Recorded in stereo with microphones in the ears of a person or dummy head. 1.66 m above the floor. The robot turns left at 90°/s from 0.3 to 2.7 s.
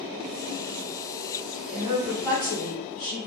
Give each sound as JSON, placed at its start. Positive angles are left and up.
{"t": 1.7, "sound": "a woman speaking", "azimuth_deg": -140, "distance_m": 1.1}